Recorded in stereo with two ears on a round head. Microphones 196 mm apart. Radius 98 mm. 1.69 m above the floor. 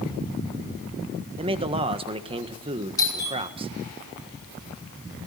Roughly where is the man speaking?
Right.